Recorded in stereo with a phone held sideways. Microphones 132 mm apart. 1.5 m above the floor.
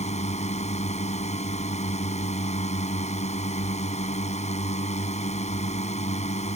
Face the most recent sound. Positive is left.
turn(degrees=60)  # may be behind; listen again after turning